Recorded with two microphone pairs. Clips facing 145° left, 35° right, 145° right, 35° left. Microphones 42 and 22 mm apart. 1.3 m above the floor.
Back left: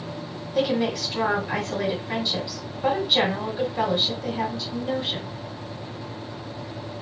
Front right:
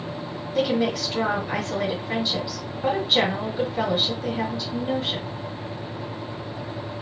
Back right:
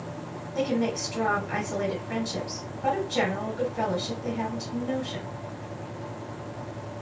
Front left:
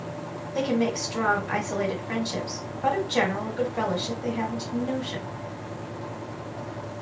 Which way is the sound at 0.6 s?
55° left.